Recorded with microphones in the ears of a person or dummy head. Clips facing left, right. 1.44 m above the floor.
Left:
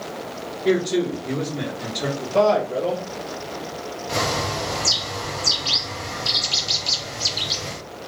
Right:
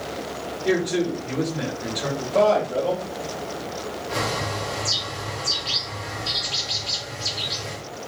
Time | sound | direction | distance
0.7 | a man speaking | 40° left (ahead or behind) | 1.6 m
2.2 | a man speaking | 25° left (ahead or behind) | 1.3 m
4.1 | a bird | 60° left (ahead or behind) | 0.8 m